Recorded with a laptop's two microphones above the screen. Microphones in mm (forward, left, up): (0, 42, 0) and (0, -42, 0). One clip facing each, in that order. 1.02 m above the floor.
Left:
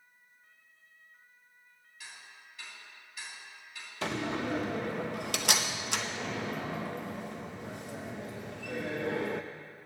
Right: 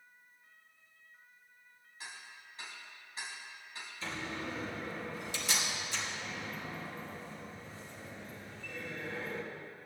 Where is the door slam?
70° left (ahead or behind), 0.7 m.